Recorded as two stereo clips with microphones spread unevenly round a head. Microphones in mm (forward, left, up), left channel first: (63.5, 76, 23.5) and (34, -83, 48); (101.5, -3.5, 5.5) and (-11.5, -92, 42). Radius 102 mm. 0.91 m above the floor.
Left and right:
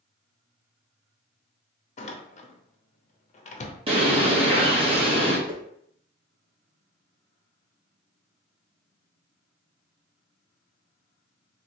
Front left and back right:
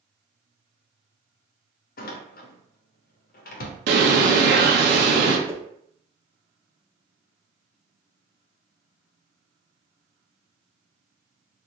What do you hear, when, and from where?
2.0 s a door slam: 35° left, 0.7 m
3.9 s a bird: 165° right, 0.6 m
5.5 s a whoosh: 80° right, 0.6 m